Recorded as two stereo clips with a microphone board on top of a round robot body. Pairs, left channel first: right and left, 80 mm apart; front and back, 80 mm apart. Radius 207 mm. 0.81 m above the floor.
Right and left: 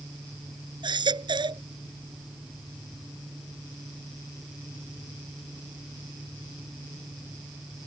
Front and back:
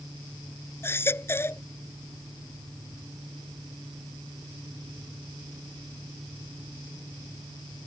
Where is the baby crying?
60° left.